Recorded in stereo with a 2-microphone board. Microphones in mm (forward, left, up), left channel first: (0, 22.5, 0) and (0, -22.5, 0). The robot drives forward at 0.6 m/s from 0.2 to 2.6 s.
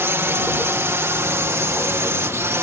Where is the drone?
60° right (ahead or behind); by 2.6 s 70° right (ahead or behind).